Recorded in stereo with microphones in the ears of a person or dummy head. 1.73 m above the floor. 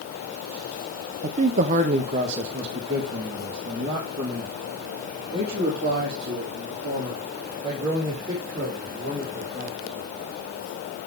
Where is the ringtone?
No ringtone in this recording.